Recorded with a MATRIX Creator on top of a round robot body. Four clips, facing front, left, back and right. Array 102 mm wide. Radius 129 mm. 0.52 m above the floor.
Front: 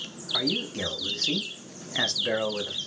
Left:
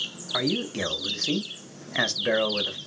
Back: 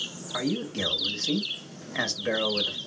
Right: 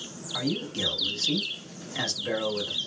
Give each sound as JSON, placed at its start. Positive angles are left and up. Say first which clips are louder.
{"t": 0.3, "sound": "a man speaking", "louder": "left 3 dB, back 1 dB", "azimuth_deg": 95, "distance_m": 1.2}